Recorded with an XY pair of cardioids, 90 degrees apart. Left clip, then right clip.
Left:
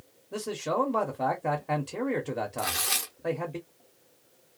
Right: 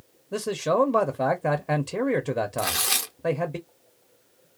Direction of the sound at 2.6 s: 35° right.